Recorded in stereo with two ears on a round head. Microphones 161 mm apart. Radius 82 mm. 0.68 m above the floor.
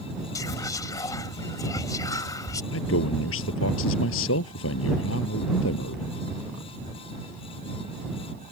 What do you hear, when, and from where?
0.3 s whispering: 20° left (ahead or behind)
2.7 s a man speaking: 85° left